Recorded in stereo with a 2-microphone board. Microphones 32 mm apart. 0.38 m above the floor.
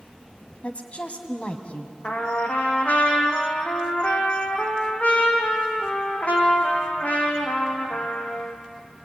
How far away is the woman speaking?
About 2.5 m.